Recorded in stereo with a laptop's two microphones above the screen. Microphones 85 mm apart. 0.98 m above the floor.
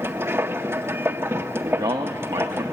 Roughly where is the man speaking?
Right.